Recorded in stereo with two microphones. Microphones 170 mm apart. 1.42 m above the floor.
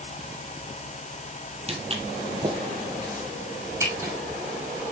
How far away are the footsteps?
About 2 m.